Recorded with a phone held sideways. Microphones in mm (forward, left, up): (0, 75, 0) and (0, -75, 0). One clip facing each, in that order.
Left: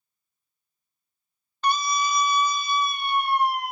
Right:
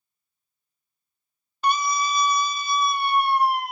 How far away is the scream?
About 0.5 m.